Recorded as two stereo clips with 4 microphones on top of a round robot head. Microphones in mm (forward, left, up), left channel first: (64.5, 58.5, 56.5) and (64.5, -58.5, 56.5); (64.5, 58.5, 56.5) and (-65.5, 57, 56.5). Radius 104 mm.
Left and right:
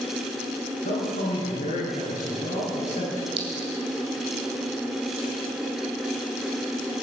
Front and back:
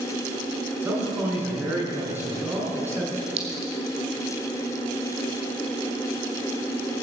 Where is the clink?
135° right, 1.7 m.